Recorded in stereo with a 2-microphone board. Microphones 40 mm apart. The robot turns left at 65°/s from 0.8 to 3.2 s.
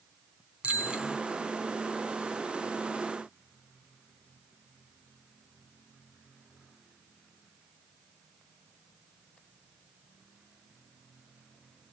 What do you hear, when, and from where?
0.6 s a bicycle bell: 35° right (ahead or behind), 3.5 m; by 1.2 s 10° right (ahead or behind), 3.5 m